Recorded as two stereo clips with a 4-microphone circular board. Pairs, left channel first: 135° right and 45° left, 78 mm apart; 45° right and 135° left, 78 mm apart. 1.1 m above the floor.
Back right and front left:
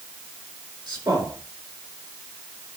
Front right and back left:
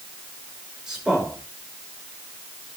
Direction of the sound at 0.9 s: 55° left.